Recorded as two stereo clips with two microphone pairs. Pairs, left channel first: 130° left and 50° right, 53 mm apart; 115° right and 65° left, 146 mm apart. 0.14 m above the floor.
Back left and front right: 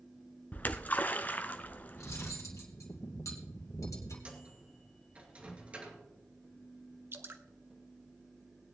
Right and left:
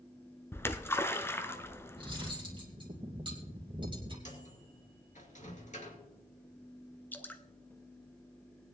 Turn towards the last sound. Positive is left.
turn(degrees=-40)